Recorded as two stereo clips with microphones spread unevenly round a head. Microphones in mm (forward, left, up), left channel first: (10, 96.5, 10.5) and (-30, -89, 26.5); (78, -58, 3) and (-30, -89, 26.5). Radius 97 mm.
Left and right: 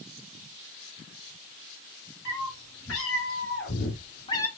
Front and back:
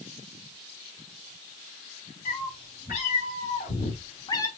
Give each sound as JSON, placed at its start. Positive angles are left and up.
{"t": 2.2, "sound": "a cat meowing", "azimuth_deg": 50, "distance_m": 3.5}